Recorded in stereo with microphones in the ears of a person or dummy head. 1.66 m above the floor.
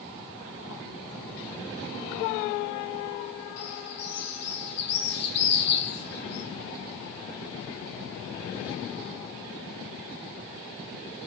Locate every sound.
3.6 s a bird: 55° left (ahead or behind), 1.5 m